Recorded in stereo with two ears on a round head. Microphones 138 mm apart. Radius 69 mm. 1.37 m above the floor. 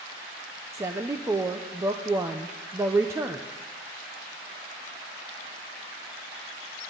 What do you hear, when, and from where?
0.7 s a woman speaking: 20° right (ahead or behind), 0.7 m